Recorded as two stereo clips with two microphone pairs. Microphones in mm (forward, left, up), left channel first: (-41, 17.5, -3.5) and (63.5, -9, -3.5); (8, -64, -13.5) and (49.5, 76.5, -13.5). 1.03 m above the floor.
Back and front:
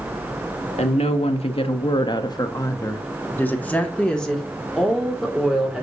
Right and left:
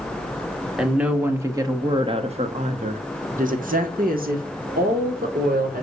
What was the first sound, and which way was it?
A woman speaking, 160° left.